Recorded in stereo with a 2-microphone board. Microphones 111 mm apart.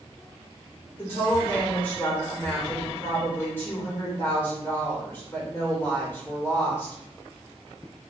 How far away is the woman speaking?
About 1.2 m.